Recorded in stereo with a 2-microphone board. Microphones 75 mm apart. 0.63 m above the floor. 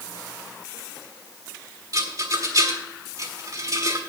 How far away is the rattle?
About 1.5 m.